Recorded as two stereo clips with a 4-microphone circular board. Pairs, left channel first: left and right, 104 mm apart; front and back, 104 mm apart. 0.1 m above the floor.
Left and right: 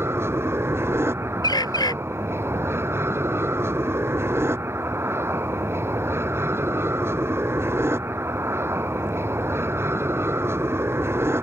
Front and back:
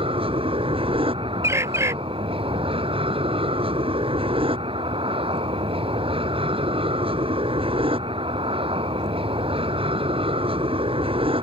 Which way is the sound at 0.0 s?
155° right.